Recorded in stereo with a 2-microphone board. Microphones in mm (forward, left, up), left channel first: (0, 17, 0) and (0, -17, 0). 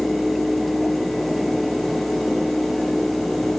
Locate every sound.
Only background noise.